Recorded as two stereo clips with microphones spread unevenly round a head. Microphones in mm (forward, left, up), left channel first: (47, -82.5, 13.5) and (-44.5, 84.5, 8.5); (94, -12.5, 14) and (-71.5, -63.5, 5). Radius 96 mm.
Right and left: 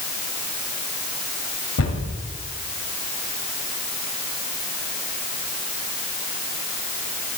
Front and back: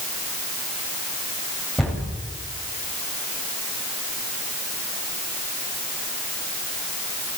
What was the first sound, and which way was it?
A cupboard door, 70° right.